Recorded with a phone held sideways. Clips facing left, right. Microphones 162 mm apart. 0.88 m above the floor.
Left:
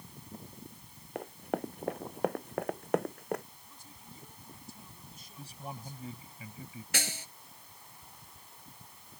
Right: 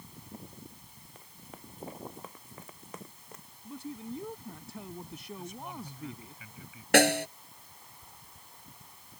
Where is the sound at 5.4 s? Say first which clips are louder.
Right 1 dB; 35° left (ahead or behind).